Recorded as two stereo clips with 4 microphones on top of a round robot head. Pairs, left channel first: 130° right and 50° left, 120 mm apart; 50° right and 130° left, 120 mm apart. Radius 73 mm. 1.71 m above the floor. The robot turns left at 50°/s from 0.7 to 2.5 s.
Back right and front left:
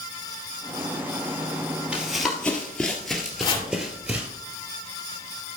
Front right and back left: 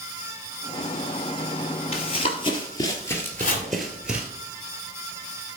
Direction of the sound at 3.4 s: 70° right.